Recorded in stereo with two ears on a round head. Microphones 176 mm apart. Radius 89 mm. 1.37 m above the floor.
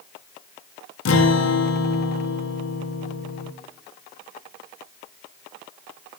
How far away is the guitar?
About 0.6 m.